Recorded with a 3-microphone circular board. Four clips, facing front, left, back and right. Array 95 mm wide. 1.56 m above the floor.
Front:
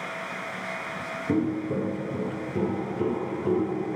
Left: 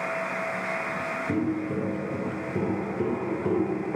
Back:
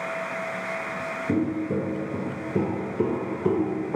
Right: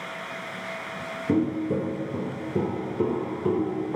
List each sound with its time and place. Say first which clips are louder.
1.3 s footsteps: right 5 dB, even; 105° right, 1.7 m; by 4.0 s 170° right, 2.5 m